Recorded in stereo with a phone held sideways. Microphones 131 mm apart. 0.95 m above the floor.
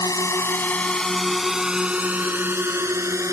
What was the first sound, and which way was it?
A drone, 25° left (ahead or behind).